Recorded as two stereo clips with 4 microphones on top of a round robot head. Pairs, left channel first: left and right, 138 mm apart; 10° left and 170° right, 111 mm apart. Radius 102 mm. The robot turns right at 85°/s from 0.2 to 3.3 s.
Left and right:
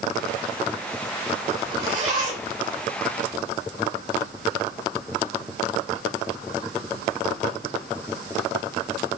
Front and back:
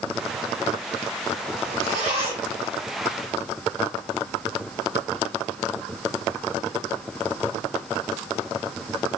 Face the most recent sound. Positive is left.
turn(degrees=-35)